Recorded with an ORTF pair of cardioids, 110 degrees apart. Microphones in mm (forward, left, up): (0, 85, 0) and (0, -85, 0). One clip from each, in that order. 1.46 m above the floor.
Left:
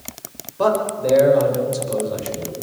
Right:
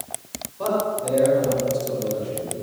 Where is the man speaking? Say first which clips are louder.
Left 5 dB; 60° left, 6.5 m.